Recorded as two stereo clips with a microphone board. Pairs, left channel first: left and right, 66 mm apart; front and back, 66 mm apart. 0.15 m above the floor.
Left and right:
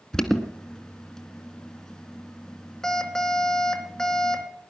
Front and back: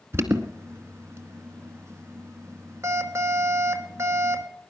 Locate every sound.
0.1 s an alarm: 165° left, 1.6 m